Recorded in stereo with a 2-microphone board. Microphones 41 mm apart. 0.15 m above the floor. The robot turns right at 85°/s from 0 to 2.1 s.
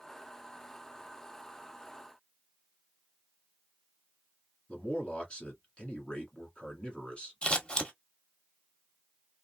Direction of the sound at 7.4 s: 25° left (ahead or behind).